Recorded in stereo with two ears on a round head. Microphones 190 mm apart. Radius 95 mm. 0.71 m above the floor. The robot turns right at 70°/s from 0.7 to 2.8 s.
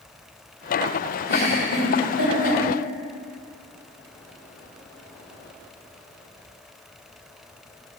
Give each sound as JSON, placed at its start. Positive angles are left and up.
{"t": 1.3, "sound": "a giggle", "side_deg": -30, "distance_m": 1.0}